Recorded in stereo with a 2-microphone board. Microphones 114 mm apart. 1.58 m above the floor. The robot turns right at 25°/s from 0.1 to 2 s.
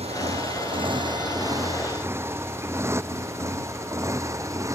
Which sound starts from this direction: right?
A motorcycle, at 0.0 s.